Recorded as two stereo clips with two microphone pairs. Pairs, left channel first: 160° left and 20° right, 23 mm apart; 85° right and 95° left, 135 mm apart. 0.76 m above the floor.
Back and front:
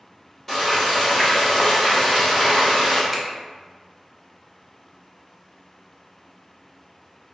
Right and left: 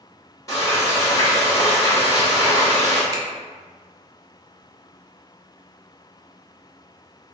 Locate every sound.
0.5 s frying: 135° right, 1.3 m
3.1 s a finger snap: 60° left, 0.5 m